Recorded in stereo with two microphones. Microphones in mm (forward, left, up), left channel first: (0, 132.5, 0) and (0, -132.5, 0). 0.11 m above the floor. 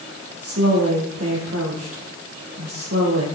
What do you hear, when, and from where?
0.4 s a woman speaking: 60° right (ahead or behind), 4 m